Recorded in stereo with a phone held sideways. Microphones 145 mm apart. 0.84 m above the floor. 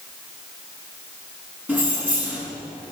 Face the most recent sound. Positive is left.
turn(degrees=-10)  # may be behind; listen again after turning